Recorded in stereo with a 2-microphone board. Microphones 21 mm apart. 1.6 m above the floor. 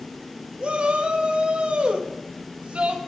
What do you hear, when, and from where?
0.6 s a shout: 60° right (ahead or behind), 3 m